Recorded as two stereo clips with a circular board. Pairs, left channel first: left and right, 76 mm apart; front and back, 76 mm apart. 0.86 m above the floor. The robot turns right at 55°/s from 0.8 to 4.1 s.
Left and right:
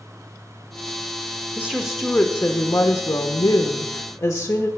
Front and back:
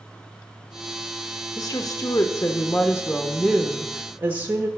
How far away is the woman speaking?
About 1.2 m.